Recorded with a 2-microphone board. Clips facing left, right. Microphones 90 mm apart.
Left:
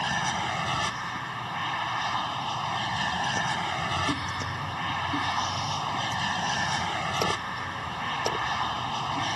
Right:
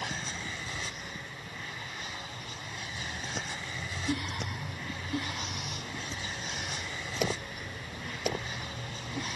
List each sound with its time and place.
0.0 s an aircraft: 70° left (ahead or behind)